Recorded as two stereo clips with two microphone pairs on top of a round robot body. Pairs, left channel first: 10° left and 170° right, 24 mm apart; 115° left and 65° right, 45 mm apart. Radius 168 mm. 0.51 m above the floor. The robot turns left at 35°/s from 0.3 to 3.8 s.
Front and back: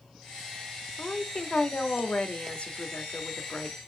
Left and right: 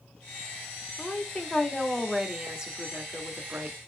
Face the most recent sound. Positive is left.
turn(degrees=-35)